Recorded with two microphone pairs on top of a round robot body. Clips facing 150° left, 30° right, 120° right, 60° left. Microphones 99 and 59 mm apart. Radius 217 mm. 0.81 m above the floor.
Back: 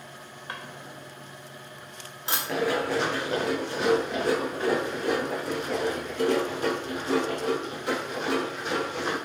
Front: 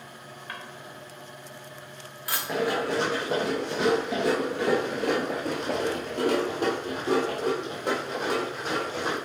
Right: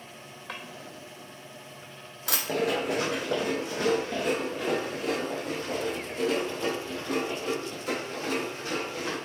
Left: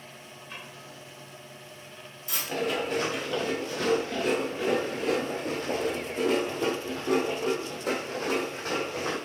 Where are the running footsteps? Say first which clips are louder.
Even, right 1 dB; 120° right, 1.1 m; by 9.2 s 15° left, 3.5 m.